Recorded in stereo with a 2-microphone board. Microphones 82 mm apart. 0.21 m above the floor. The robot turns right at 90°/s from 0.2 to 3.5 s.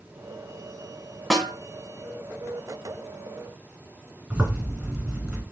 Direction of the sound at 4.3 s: 15° right (ahead or behind).